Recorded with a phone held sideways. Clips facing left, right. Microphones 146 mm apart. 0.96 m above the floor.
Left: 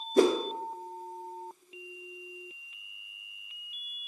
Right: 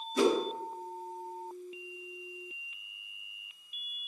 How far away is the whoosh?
About 0.8 m.